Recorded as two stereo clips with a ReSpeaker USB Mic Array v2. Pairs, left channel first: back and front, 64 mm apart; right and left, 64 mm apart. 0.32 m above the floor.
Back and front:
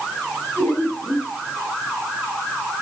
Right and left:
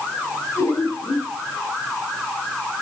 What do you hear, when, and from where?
0.6 s laughter: 110° right, 7 m